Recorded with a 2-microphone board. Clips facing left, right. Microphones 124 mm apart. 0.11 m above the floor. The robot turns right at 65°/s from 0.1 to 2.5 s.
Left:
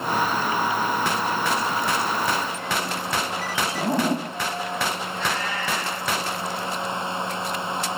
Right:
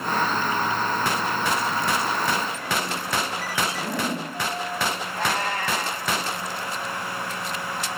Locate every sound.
3.8 s a zipper: 40° left (ahead or behind), 5 m
5.1 s a cat meowing: 55° right (ahead or behind), 10 m